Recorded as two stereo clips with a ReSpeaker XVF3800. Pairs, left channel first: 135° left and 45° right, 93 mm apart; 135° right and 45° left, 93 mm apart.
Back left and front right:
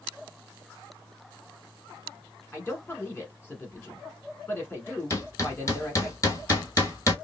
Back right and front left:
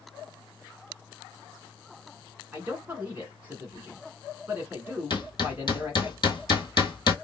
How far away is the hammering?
About 1.4 m.